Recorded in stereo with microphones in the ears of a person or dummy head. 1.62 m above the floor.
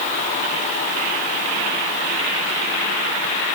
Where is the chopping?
No chopping in this recording.